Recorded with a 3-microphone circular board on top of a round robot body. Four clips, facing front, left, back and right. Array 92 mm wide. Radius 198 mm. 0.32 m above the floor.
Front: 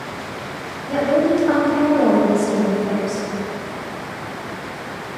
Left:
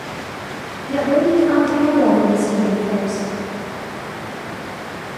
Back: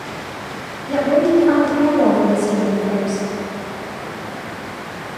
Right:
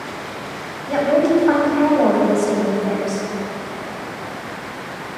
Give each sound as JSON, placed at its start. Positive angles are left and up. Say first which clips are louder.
{"t": 0.9, "sound": "a woman speaking", "louder": "even, back 2 dB", "azimuth_deg": -95, "distance_m": 2.0}